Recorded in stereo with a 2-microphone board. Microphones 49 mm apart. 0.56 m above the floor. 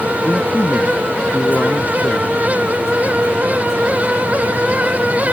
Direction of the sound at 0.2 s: 40° left (ahead or behind).